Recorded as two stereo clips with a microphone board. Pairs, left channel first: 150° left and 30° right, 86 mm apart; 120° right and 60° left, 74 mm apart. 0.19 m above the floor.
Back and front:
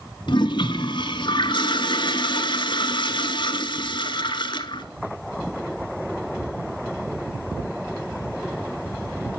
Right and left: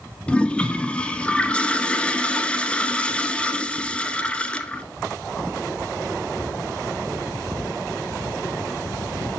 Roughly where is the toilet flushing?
Behind.